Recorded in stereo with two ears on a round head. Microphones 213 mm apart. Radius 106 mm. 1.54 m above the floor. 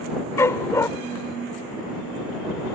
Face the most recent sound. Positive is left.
turn(degrees=15)  # may be behind; listen again after turning